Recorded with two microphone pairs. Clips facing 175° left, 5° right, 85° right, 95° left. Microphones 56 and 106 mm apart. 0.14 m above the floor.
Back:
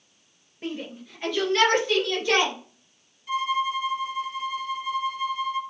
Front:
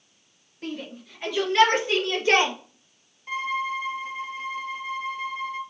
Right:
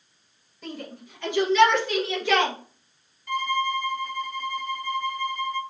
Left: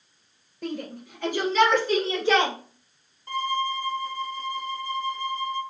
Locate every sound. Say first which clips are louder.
0.6 s a shout: back 1 dB, left 5 dB; 100° left, 2.5 m; by 2.5 s 40° left, 2 m
3.3 s a violin: back 2 dB, right 1 dB; 40° left, 0.6 m